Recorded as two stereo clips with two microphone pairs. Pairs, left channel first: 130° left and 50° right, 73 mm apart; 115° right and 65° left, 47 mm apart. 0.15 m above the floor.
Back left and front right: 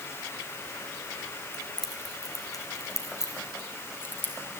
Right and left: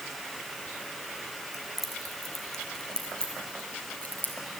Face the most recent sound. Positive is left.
turn(degrees=-165)